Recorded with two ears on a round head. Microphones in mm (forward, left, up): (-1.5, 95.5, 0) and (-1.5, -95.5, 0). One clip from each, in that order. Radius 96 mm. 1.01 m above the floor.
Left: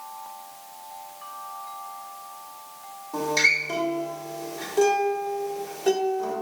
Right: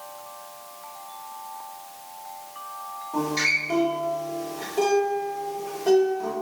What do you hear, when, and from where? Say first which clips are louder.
3.1 s a guitar: left 2 dB; 40° left (ahead or behind), 1.3 m